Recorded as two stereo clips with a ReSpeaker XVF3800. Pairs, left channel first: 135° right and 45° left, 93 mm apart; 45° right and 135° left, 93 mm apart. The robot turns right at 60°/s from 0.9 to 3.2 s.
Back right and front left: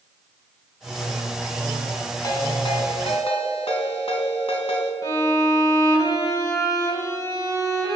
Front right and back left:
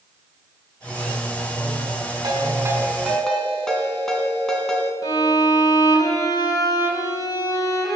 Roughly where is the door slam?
No door slam in this recording.